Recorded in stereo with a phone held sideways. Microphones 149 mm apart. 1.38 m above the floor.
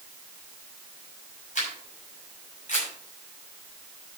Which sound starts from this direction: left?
A camera shutter, at 1.6 s.